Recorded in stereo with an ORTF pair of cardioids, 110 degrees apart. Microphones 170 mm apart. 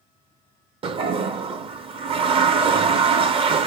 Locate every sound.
0.8 s a toilet flushing: 35° right, 0.6 m